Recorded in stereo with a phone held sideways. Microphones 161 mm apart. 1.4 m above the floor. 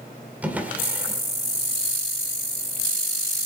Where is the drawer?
10° right (ahead or behind), 2 m.